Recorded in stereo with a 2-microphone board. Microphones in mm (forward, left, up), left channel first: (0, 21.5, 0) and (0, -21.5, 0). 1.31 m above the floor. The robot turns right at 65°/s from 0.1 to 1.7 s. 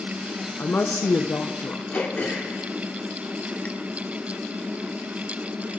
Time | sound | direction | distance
0.6 | a woman speaking | 45° left | 0.6 m
1.9 | throat clearing | 35° left (ahead or behind) | 1.4 m